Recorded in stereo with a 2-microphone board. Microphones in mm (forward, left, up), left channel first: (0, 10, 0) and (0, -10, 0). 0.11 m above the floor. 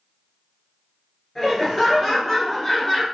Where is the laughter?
20° left (ahead or behind), 1.3 m.